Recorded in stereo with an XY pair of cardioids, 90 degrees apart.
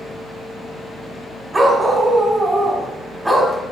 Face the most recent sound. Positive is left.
turn(degrees=-10)